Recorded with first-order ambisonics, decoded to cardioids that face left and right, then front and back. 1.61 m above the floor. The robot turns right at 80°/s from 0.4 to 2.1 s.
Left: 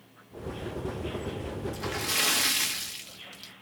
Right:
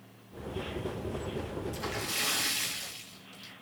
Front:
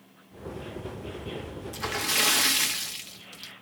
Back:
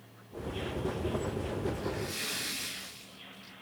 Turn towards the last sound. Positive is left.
turn(degrees=30)